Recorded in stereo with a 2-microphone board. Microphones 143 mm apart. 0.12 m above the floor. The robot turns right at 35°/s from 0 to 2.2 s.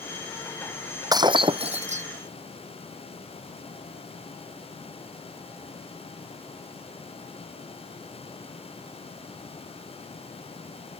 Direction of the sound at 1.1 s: 155° right.